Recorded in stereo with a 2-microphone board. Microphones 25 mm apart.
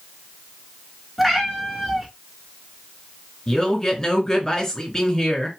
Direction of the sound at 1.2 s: Centre (ahead or behind).